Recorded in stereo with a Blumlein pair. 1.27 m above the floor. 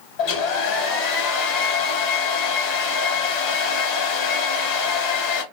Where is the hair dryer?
45° left, 1.5 m.